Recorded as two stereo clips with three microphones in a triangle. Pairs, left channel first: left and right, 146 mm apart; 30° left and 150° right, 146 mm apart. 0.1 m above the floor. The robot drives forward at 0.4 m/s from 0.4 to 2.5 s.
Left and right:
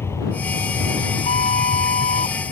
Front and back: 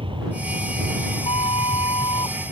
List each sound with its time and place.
0.0 s an aircraft: 160° left; by 2.5 s 135° left
1.2 s a flute: 75° left; by 2.4 s 85° left